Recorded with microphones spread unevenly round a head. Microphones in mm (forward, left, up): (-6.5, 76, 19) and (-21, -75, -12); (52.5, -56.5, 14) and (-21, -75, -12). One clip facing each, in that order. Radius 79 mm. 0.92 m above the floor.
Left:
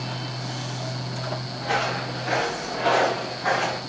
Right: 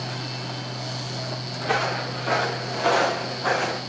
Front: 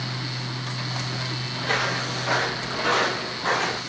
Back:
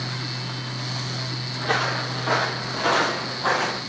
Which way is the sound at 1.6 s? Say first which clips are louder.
Right 1 dB, back 2 dB; 125° right.